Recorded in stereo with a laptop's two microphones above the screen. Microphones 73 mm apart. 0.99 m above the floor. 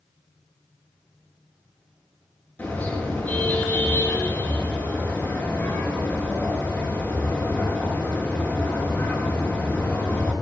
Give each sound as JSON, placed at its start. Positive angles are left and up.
{"t": 2.6, "sound": "a car horn", "side_deg": 20, "distance_m": 7.5}